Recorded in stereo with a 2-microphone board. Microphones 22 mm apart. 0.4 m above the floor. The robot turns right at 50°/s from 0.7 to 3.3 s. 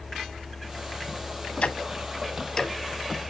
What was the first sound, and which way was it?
Ticking, 70° left (ahead or behind).